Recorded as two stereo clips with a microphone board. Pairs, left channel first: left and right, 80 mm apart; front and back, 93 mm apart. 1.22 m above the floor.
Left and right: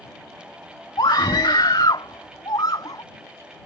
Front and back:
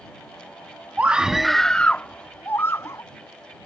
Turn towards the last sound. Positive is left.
turn(degrees=55)